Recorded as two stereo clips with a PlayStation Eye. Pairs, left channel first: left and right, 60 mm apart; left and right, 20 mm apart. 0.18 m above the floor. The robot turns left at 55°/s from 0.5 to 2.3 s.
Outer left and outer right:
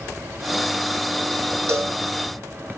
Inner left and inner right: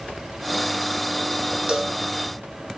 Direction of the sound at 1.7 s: 50° right (ahead or behind).